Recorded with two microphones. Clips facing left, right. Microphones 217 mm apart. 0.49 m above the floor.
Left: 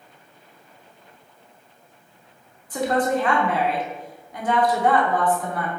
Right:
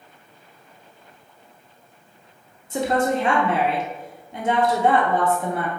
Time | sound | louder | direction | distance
2.7 | a woman speaking | even | 25° right (ahead or behind) | 0.8 m